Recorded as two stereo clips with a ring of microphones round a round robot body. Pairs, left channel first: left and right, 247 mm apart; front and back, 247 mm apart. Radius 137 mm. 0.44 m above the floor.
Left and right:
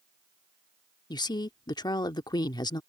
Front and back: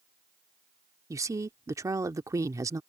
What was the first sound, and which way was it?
A woman speaking, 130° left.